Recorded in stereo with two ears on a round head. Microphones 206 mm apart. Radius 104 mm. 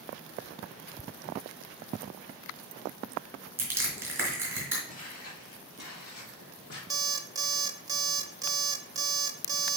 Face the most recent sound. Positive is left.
turn(degrees=-15)  # may be behind; listen again after turning